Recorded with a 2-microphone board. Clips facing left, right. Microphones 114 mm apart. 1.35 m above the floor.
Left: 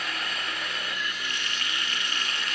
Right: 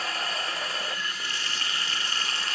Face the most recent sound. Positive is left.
turn(degrees=-30)  # may be behind; listen again after turning